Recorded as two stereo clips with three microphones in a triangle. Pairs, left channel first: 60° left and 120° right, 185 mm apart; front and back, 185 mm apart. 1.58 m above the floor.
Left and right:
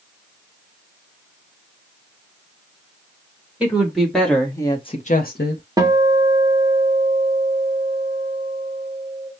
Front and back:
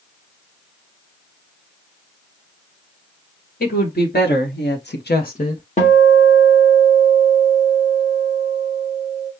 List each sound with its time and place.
3.6 s a woman speaking: 35° right, 2 m; by 5.6 s 60° left, 1.0 m
5.8 s a guitar: 50° right, 1.4 m